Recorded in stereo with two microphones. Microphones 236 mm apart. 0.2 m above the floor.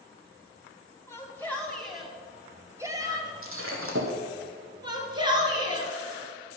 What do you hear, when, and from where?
1.1 s a shout: 10° left (ahead or behind), 1.3 m; by 3.3 s 20° right (ahead or behind), 1.0 m
3.4 s breaking glass: 65° right (ahead or behind), 1.7 m
4.8 s a shout: 20° right (ahead or behind), 2.5 m